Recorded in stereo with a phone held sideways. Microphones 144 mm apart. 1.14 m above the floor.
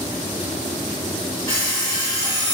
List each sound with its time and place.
1.5 s an alarm clock: 30° left (ahead or behind), 1.3 m